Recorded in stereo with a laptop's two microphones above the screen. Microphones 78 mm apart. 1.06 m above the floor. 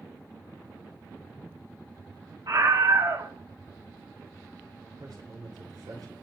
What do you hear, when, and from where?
2.5 s a scream: 65° right (ahead or behind), 5.5 m
5.0 s a man speaking: 60° right (ahead or behind), 4 m